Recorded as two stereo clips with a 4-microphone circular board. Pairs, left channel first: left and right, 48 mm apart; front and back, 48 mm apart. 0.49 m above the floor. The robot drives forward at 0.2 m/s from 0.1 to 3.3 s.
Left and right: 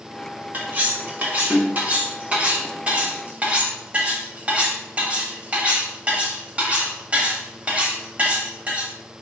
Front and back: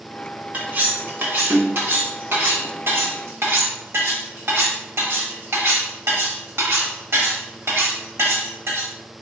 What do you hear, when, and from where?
0.5 s cutlery clinking: 135° right, 0.9 m; by 8.9 s 150° right, 1.3 m